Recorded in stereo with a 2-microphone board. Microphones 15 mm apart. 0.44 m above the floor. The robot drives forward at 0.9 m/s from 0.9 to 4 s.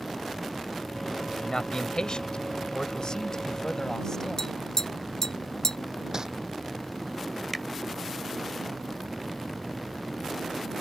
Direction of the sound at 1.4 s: 55° left (ahead or behind).